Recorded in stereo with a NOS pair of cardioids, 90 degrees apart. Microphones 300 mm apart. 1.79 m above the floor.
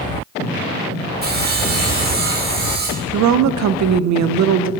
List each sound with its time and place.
1.2 s sawing: 30° right, 1.7 m
3.1 s a woman speaking: 70° right, 0.7 m